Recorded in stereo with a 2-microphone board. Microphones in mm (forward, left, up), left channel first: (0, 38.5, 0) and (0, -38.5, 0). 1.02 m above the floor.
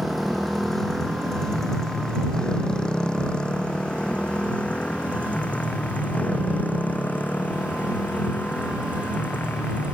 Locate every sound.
0.0 s a motorcycle: centre (ahead or behind); by 10.0 s 25° left (ahead or behind)